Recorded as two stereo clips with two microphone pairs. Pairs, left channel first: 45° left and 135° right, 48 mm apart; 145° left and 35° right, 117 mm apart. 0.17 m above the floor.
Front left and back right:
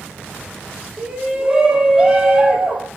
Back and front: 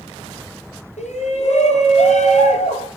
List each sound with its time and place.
1.0 s a shout: 145° left, 5.5 m